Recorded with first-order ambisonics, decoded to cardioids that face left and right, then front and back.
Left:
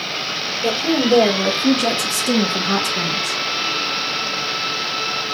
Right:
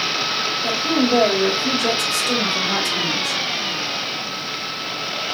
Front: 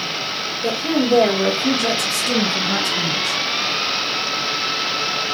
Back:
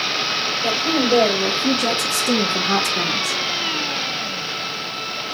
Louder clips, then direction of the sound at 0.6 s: Left 4 dB, front 1 dB; 70° left.